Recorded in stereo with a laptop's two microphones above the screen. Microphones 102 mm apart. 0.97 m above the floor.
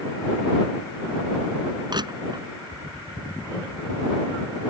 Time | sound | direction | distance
1.9 | crushing | 50° right (ahead or behind) | ?